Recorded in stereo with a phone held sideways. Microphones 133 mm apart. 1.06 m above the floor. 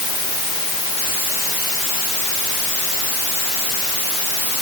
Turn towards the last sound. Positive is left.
No sound to turn to.